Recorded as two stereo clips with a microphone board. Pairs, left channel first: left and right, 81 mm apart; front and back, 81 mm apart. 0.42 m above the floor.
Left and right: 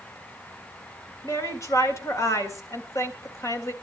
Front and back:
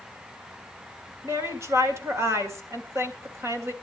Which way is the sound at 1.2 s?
135° left.